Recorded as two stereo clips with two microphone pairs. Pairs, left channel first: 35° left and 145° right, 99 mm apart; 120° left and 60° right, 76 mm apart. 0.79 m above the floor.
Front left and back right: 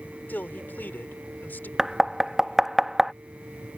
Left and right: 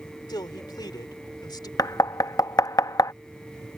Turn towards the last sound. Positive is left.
turn(degrees=130)